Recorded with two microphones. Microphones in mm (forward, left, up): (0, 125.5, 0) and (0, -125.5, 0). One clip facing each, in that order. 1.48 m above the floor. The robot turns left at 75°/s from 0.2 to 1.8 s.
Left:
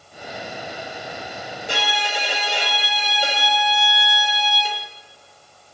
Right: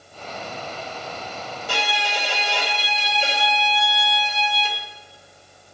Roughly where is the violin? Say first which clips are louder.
Left 1 dB; left.